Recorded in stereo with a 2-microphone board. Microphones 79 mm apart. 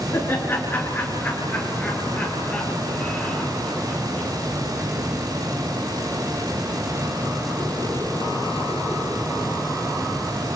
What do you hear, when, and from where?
0.1 s laughter: 30° left (ahead or behind), 3 m; by 4.3 s 10° left (ahead or behind), 4.5 m